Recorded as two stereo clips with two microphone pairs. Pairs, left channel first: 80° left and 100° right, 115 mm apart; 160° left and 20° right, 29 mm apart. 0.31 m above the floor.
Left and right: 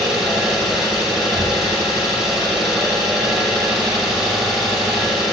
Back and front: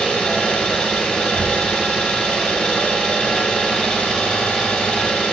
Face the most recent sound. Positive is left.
turn(degrees=175)